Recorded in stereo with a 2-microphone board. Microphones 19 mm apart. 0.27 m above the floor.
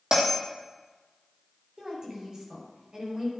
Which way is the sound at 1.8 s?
40° right (ahead or behind).